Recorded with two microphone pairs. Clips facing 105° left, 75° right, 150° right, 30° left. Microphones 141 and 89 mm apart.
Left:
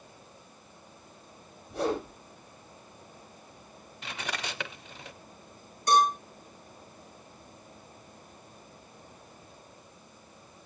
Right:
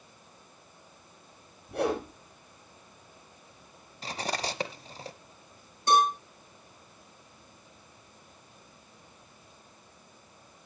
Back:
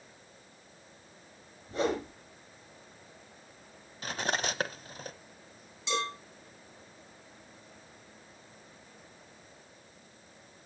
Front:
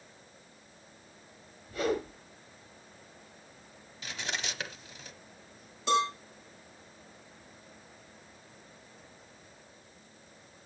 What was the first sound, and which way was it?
A whoosh, 90° right.